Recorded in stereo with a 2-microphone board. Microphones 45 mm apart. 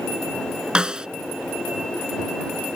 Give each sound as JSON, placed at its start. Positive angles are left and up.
{"t": 0.8, "sound": "a snare drum", "side_deg": -20}